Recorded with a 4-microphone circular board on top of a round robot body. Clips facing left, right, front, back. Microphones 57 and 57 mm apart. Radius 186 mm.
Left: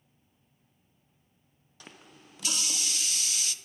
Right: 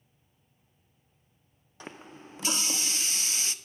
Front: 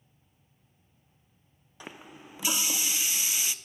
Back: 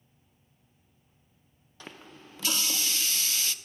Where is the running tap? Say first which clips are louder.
Right 7 dB, front 1 dB; 65° right, 0.5 m.